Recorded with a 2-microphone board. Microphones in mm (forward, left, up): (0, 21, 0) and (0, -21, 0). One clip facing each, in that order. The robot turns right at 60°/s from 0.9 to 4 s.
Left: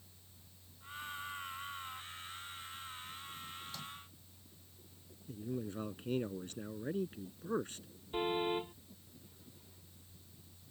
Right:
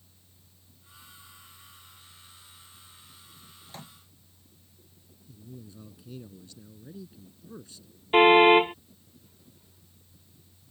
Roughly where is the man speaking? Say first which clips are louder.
Left 7 dB; left.